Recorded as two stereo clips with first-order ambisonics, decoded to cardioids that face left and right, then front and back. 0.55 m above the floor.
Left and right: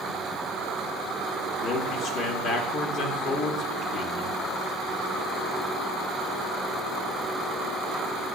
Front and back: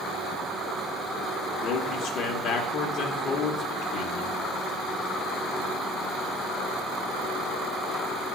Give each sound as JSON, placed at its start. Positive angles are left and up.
{"t": 1.6, "sound": "a man speaking", "azimuth_deg": 40, "distance_m": 1.1}